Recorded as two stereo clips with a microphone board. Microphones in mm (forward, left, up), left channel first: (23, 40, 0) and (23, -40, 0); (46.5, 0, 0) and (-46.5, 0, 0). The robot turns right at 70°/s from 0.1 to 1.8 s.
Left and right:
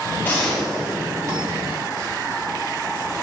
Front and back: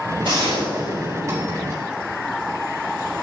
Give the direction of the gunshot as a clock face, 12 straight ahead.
7 o'clock.